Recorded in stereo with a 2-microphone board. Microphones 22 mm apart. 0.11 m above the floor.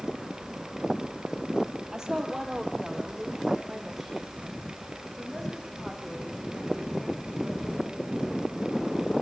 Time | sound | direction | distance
1.9 | a woman speaking | 20° right (ahead or behind) | 3 m